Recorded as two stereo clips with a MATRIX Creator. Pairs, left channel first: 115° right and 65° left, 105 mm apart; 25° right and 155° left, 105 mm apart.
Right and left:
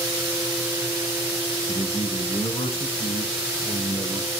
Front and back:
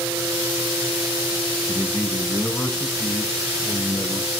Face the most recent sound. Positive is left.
turn(degrees=-110)